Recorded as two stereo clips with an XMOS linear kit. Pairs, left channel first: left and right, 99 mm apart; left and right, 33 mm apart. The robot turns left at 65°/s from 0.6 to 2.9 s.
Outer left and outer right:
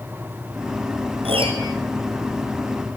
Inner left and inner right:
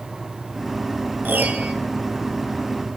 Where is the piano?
100° right, 1.6 m; by 1.7 s 135° right, 1.6 m.